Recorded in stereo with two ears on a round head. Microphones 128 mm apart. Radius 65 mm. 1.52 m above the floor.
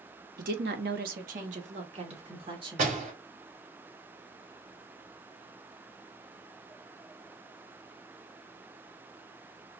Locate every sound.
0.4 s a woman speaking: 65° right (ahead or behind), 1.1 m; by 3.0 s 35° right (ahead or behind), 2.5 m
2.8 s a door slam: 60° right (ahead or behind), 3.5 m